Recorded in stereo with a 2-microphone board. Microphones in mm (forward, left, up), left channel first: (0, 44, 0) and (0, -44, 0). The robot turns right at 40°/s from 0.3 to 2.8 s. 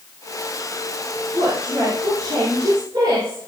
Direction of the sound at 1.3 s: 135° right.